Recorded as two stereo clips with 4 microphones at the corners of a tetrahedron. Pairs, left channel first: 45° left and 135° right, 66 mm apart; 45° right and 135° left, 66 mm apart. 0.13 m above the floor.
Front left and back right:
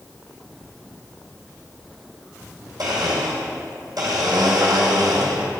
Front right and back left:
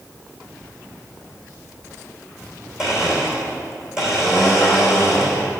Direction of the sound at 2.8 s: 145° right.